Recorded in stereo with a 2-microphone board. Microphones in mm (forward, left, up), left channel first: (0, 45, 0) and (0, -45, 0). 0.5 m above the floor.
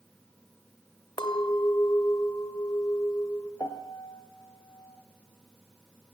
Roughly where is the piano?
Left.